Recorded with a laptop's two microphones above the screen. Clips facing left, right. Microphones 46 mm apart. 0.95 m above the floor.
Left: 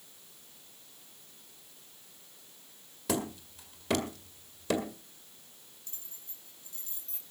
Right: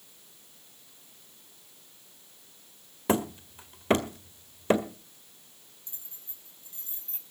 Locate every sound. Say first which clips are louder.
3.1 s hammering: right 6 dB; 35° right (ahead or behind), 1.8 m
5.9 s keys jangling: even; 25° right (ahead or behind), 4.5 m